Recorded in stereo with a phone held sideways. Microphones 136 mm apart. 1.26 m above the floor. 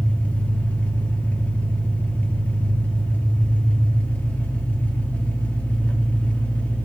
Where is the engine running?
10° left (ahead or behind), 2 m.